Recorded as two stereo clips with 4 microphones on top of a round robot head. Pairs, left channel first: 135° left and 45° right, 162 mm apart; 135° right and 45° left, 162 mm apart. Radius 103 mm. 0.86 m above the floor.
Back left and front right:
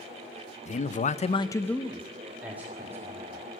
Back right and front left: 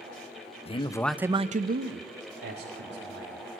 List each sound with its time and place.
0.7 s a man speaking: 175° left, 1.1 m; by 3.4 s 30° left, 3 m